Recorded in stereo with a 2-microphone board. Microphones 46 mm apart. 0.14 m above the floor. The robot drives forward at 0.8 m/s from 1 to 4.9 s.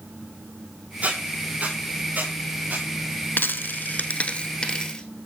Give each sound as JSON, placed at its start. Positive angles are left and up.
{"t": 1.0, "sound": "a squeak", "side_deg": -35, "distance_m": 5.5}
{"t": 3.4, "sound": "a dropped coin", "side_deg": 45, "distance_m": 0.6}